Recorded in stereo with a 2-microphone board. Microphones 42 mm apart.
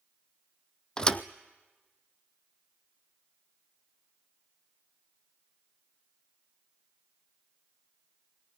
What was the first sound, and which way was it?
A thud, 15° left (ahead or behind).